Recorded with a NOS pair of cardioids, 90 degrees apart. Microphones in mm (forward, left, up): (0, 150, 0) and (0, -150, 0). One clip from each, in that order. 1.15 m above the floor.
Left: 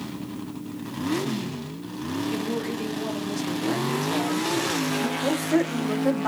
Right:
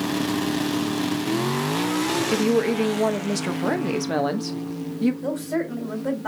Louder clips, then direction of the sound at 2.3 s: Right 8 dB; 65° right.